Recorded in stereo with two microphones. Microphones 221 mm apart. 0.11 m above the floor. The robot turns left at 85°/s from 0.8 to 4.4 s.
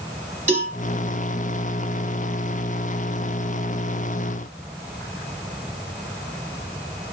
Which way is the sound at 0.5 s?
35° right (ahead or behind).